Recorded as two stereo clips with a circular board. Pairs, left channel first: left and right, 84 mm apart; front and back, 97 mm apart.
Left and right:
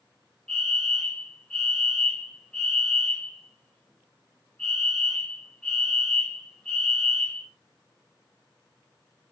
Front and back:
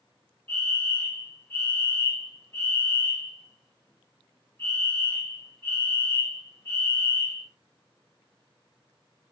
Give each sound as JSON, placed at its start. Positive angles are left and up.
{"t": 0.5, "sound": "a fire alarm", "azimuth_deg": 35, "distance_m": 2.0}